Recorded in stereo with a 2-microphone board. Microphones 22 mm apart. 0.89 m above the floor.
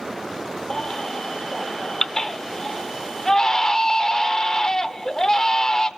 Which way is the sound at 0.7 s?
30° left (ahead or behind).